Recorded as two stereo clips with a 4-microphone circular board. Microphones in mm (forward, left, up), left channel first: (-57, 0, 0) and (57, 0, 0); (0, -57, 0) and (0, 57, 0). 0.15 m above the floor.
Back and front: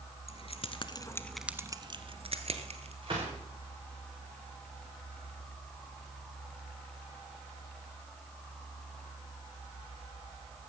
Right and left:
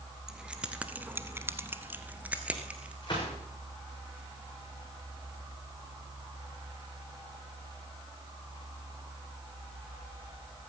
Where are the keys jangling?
175° left, 1.6 m; by 2.9 s 10° left, 2 m.